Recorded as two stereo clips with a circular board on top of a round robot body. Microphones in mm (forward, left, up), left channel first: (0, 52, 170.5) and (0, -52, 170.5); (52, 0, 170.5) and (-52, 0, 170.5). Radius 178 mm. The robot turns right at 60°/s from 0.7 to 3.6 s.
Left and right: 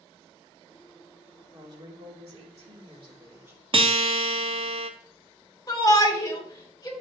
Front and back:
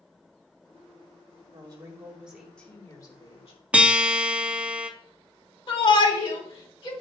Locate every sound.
1.5 s a woman speaking: 145° right, 2.5 m; by 3.6 s 20° right, 2.5 m
3.7 s a guitar: 105° right, 1.2 m
5.7 s a shout: 40° left, 3 m